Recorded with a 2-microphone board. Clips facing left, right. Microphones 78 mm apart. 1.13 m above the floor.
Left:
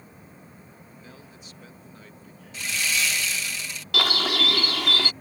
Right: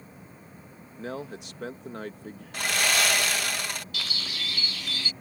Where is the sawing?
55° right (ahead or behind).